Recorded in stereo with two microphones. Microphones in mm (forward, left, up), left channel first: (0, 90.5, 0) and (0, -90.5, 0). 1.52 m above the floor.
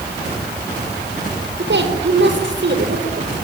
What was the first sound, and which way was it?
A woman speaking, 85° right.